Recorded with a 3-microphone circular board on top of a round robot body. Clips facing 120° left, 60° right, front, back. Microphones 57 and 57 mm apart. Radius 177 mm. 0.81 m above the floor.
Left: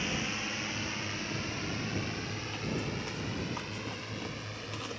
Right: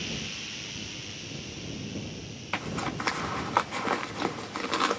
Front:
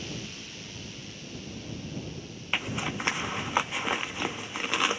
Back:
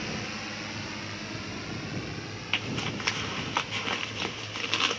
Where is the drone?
170° left; by 5.0 s 145° left.